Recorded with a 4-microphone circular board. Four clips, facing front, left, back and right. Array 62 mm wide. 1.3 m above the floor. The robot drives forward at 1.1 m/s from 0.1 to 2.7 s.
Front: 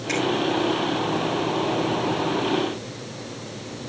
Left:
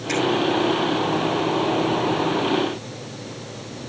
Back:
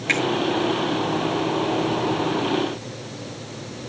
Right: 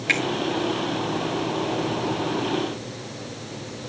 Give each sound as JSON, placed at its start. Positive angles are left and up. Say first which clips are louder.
{"t": 0.1, "sound": "a finger snap", "louder": "right 1 dB, back 4 dB", "azimuth_deg": -130, "distance_m": 1.4}